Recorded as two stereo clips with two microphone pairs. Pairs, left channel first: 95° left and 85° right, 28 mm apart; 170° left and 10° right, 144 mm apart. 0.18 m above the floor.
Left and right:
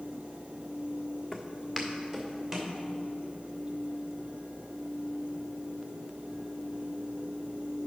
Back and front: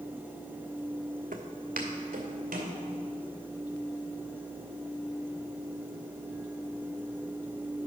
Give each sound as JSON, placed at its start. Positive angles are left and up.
{"t": 1.3, "sound": "footsteps", "azimuth_deg": 5, "distance_m": 0.9}